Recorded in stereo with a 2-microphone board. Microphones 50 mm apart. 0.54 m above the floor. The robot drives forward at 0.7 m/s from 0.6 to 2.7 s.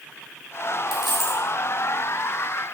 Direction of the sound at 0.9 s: 5° right (ahead or behind).